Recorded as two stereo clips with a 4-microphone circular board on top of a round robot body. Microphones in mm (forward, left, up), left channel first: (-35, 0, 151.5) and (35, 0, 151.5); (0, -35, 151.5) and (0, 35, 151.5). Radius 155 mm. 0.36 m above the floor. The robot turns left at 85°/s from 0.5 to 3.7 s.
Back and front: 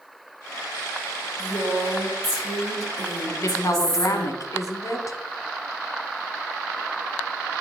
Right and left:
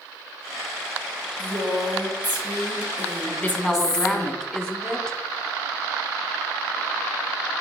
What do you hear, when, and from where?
1.4 s a woman speaking: 160° left, 3.5 m; by 4.3 s 40° right, 3.5 m
3.3 s a woman speaking: 130° right, 1.2 m; by 5.2 s 165° right, 1.2 m